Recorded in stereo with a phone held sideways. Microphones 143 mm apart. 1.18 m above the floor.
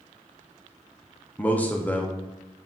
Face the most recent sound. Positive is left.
turn(degrees=10)  # may be behind; listen again after turning